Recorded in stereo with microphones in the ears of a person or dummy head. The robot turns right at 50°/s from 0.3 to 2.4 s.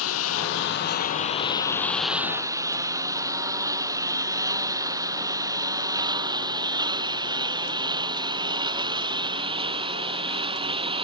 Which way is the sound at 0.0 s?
90° left.